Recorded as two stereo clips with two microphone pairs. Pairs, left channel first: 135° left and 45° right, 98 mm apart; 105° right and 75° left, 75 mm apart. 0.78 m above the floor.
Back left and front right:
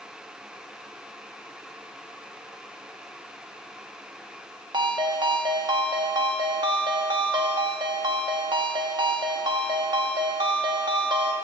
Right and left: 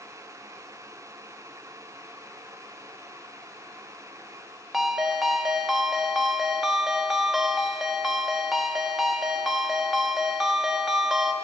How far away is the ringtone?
About 0.8 m.